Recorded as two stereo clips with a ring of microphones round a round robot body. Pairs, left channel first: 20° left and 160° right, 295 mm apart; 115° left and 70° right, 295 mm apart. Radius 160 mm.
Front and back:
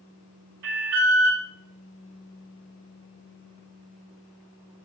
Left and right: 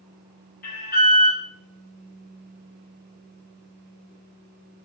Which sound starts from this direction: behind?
An alarm, at 0.6 s.